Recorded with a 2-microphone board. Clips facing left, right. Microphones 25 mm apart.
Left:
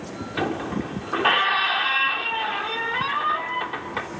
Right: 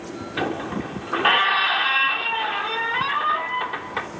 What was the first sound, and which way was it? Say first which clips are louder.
A squeak: even; 5° right (ahead or behind).